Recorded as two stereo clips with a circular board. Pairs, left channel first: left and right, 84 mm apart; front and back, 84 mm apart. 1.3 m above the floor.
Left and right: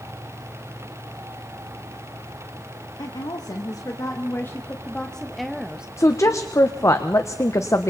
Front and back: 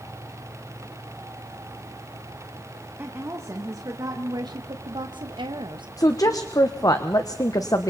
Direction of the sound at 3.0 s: 120° left.